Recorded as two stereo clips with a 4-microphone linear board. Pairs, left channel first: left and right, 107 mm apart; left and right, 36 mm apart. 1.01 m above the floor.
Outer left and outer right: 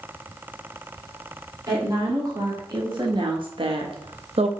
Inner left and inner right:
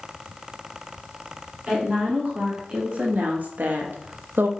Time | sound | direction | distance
1.7 | a woman speaking | 35° right (ahead or behind) | 1.8 m